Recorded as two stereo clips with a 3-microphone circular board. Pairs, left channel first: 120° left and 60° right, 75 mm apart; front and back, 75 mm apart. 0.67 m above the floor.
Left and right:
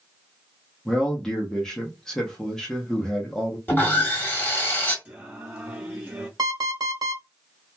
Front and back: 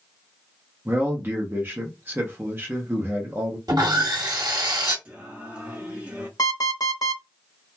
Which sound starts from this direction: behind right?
Singing, at 5.0 s.